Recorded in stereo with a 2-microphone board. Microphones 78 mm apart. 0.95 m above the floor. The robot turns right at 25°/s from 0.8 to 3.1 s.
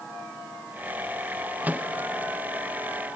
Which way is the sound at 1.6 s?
20° right (ahead or behind).